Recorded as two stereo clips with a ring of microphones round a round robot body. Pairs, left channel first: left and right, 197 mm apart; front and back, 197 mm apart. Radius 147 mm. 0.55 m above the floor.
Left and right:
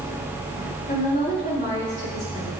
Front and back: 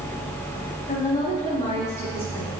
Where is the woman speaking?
50° left, 3 m; by 2.5 s 85° left, 3.5 m.